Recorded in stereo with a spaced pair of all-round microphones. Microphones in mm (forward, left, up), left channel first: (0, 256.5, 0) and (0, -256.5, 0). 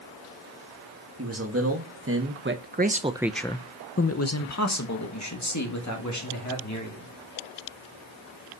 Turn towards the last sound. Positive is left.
turn(degrees=35)  # may be behind; listen again after turning